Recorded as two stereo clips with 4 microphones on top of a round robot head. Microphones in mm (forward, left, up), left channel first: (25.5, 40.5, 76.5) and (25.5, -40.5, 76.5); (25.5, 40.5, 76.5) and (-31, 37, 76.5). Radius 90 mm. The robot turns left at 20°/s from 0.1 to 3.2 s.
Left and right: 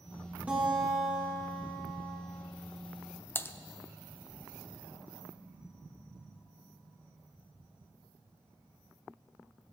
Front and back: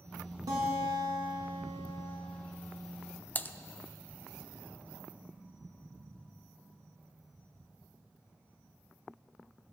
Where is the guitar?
165° right, 2 m; by 2.2 s 160° left, 2 m.